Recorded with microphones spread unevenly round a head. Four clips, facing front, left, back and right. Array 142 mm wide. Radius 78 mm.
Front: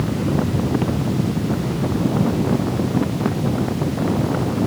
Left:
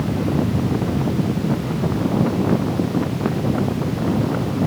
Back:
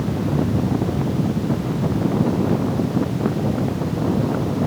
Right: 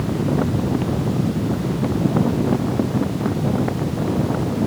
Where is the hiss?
I don't hear a hiss.